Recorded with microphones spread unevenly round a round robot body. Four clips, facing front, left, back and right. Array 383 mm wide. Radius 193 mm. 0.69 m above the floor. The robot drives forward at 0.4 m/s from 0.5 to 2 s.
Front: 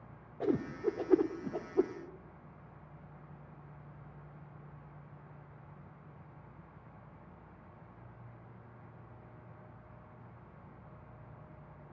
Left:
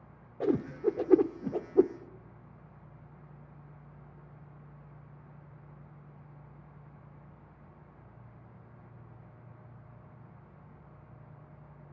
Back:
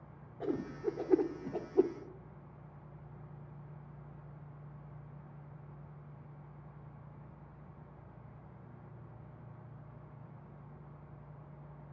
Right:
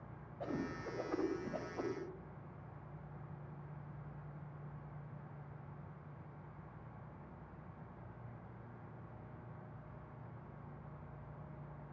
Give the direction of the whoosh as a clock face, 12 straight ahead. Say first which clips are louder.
Left 13 dB, front 4 dB; 10 o'clock.